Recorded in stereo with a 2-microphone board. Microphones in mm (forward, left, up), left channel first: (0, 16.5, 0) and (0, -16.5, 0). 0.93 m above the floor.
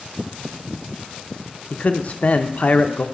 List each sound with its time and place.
1.7 s a man speaking: 45° left (ahead or behind), 0.5 m